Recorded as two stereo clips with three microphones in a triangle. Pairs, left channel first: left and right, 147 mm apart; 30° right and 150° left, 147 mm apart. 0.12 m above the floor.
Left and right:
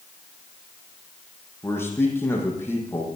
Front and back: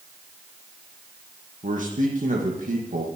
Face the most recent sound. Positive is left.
turn(degrees=160)